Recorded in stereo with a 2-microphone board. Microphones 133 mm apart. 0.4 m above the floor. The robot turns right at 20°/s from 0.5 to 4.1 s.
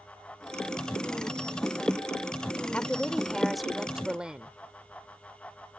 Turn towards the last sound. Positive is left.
turn(degrees=-5)  # may be behind; listen again after turning